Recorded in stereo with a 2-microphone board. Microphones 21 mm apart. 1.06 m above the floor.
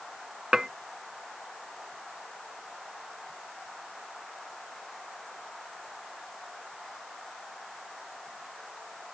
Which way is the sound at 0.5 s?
25° right (ahead or behind).